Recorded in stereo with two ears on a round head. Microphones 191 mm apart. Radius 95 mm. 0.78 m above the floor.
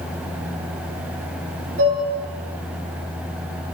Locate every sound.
1.8 s dishes clattering: 50° right (ahead or behind), 9 m